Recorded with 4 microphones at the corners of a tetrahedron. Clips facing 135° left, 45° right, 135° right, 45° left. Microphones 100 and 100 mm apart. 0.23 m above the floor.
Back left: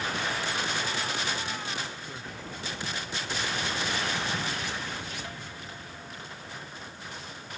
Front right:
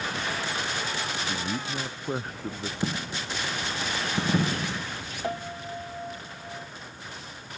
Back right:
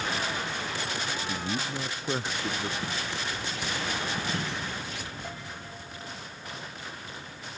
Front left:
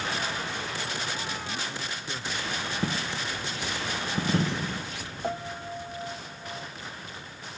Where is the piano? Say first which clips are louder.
Front right 9 dB, front left 8 dB; 5° right.